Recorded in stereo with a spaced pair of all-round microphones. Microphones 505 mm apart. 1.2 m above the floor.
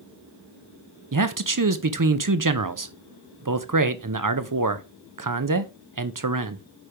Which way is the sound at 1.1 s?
40° right (ahead or behind).